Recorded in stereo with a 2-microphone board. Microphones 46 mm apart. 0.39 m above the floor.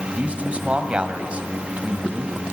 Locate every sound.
0.2 s a man speaking: 25° right (ahead or behind), 2.5 m